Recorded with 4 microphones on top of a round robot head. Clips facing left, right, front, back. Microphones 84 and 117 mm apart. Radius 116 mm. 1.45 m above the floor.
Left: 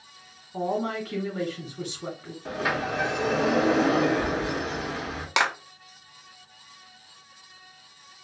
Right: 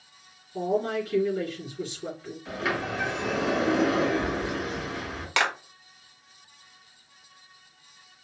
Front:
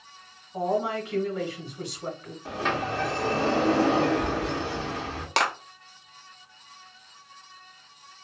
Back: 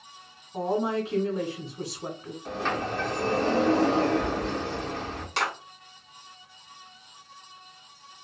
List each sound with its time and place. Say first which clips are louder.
0.5 s a woman speaking: right 1 dB, even; 110° left, 2 m
2.5 s a sliding door: left 2 dB, front 1 dB; 80° left, 1.6 m
5.4 s a clap: left 1 dB, front 4 dB; 20° left, 0.7 m